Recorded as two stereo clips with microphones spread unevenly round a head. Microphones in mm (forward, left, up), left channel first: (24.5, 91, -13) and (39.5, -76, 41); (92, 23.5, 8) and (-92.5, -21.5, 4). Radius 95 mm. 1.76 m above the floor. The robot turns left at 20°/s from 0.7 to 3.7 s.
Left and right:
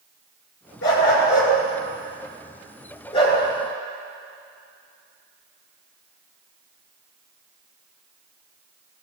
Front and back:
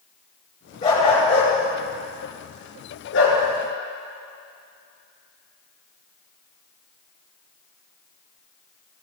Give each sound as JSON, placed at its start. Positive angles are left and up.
{"t": 0.8, "sound": "a dog barking", "azimuth_deg": 80, "distance_m": 6.0}